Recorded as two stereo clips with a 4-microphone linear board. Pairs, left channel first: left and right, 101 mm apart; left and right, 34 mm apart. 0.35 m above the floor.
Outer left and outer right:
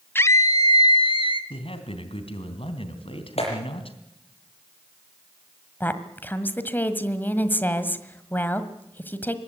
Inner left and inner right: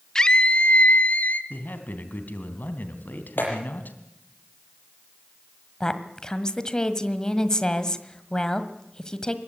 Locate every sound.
0.1 s a scream: 20° left (ahead or behind), 0.9 m; by 1.4 s 60° left (ahead or behind), 1.9 m
1.5 s a man speaking: 65° left (ahead or behind), 3 m
3.4 s a clap: 80° left, 7.5 m
5.8 s a woman speaking: 20° left (ahead or behind), 1.6 m